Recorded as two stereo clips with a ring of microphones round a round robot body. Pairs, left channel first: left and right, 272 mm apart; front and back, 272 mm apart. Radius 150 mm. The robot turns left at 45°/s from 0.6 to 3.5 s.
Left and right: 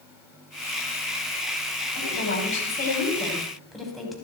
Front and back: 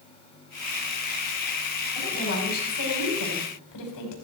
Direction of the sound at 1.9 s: 70° left.